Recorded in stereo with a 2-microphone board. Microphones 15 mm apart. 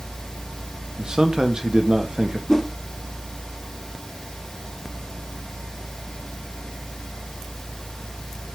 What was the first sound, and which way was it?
A man speaking, 60° right (ahead or behind).